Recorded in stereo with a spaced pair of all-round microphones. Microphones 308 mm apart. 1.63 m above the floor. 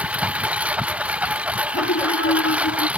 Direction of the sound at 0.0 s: 5° right (ahead or behind).